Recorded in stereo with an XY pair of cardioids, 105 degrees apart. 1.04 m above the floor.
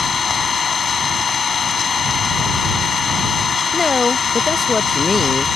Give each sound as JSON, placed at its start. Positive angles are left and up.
{"t": 0.0, "sound": "an engine running", "azimuth_deg": 40}
{"t": 3.7, "sound": "a woman speaking", "azimuth_deg": 25}